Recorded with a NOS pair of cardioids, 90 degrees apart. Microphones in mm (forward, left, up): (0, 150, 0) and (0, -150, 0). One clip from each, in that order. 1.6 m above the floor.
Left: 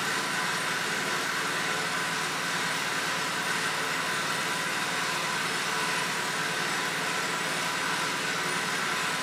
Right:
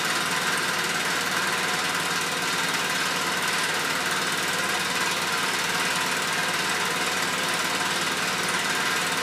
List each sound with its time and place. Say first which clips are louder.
0.0 s an engine running: right 4 dB; 65° right, 1.6 m